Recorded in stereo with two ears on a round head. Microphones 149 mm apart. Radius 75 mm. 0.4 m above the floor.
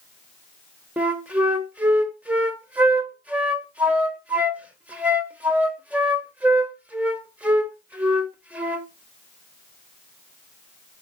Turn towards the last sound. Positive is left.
turn(degrees=-10)  # may be behind; listen again after turning